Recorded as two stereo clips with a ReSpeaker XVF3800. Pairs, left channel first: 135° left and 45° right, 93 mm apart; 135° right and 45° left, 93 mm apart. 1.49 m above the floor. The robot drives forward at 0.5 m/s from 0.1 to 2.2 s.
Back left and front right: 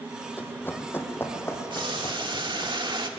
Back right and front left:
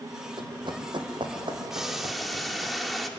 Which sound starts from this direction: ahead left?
Running footsteps, at 0.4 s.